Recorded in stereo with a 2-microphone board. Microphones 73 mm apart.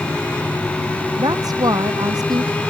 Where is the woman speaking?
65° right (ahead or behind).